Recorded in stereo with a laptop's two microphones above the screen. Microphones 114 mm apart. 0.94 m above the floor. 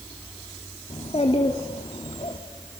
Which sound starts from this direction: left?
A child speaking, at 0.9 s.